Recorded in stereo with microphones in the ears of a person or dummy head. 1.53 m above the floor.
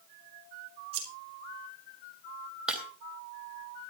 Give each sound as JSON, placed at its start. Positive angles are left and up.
{"t": 0.9, "sound": "scissors", "side_deg": -40, "distance_m": 4.0}
{"t": 2.7, "sound": "breaking glass", "side_deg": -5, "distance_m": 3.0}